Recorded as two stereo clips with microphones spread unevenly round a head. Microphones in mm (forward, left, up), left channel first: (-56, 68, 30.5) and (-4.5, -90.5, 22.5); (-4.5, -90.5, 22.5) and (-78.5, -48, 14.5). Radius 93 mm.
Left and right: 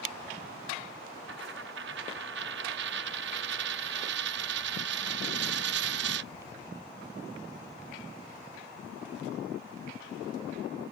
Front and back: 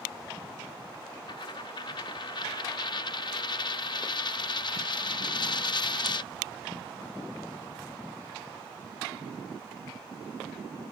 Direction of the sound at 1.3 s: 45° right.